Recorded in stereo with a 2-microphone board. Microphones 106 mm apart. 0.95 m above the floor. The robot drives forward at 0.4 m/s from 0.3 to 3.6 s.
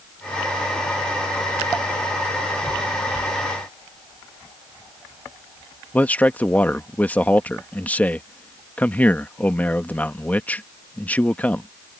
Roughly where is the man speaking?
Centre.